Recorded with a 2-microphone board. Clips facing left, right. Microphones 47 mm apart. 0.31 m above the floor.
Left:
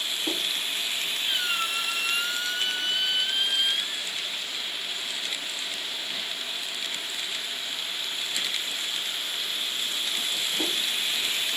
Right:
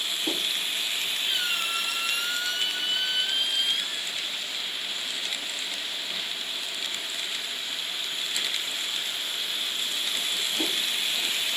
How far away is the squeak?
About 4 m.